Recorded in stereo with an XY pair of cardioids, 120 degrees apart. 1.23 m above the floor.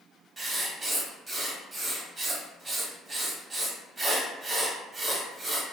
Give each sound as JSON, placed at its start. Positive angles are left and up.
{"t": 0.4, "sound": "writing", "azimuth_deg": -30, "distance_m": 0.9}